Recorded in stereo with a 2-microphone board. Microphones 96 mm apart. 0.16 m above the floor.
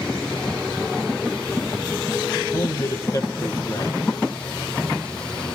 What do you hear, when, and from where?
2.5 s a man speaking: 30° left (ahead or behind), 4.5 m